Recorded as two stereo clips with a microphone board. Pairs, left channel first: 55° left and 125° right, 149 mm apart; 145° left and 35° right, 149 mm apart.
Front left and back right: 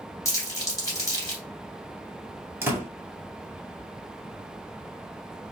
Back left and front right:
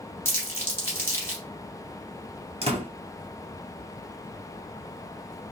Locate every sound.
0.2 s crumpling: 95° left, 1.7 m
2.6 s a door slam: 55° right, 1.6 m